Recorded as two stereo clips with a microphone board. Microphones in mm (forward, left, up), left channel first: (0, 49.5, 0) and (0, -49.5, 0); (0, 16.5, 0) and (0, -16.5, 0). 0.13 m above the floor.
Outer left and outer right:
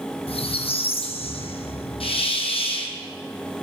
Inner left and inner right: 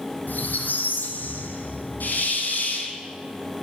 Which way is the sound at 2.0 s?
75° left (ahead or behind).